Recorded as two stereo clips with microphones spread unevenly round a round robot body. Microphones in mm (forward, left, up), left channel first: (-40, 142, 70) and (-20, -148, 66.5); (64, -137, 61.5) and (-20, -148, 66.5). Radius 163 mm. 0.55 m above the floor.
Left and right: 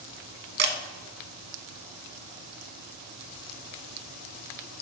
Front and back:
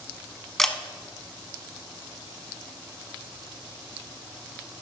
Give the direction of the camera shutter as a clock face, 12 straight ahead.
2 o'clock.